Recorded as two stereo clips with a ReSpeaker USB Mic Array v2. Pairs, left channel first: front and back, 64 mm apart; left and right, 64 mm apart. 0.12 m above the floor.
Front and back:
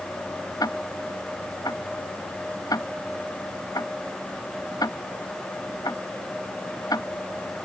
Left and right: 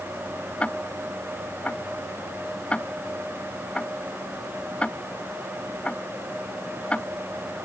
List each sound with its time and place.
0.6 s ticking: 20° left